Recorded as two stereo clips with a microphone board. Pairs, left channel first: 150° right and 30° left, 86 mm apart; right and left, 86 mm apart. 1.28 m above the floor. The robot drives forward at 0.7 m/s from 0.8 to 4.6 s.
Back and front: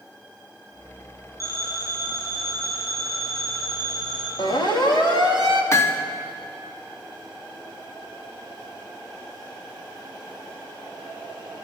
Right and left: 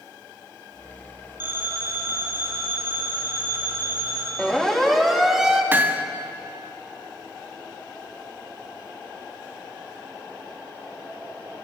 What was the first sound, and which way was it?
A phone ringing, 155° left.